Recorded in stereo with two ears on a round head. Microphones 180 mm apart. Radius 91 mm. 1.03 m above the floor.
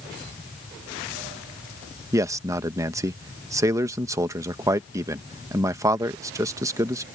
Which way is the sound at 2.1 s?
15° right (ahead or behind).